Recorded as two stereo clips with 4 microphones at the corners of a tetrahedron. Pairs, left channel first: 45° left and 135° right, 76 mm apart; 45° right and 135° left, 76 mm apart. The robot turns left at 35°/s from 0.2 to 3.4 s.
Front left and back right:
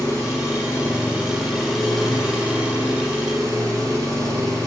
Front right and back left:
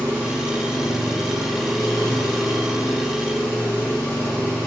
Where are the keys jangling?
I don't hear keys jangling.